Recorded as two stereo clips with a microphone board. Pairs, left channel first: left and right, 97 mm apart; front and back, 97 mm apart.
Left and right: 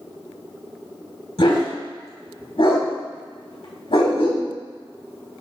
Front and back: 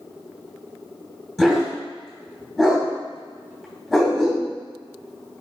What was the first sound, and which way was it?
A dog barking, 90° left.